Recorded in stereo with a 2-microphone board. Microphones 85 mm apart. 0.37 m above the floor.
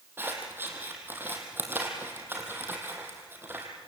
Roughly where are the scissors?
Right.